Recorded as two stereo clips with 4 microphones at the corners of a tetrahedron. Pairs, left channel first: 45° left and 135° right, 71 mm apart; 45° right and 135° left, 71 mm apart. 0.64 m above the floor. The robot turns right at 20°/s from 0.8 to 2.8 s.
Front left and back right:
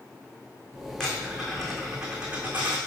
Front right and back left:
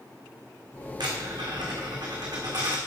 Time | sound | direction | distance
1.0 | a dropped coin | 125° left | 3.5 m